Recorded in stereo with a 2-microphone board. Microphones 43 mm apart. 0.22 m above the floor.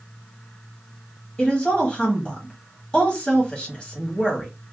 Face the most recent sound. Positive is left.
turn(degrees=20)  # may be behind; listen again after turning